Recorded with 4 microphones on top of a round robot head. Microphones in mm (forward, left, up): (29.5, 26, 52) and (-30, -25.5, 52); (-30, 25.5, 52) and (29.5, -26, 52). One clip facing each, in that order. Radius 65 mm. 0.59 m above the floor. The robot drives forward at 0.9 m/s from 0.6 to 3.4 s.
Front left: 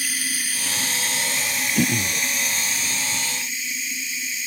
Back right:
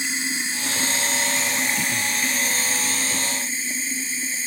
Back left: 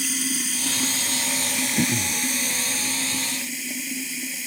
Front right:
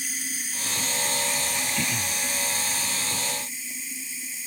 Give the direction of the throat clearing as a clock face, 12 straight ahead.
9 o'clock.